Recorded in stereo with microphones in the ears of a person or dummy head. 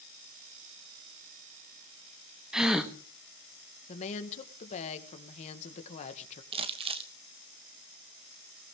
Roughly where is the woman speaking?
Left.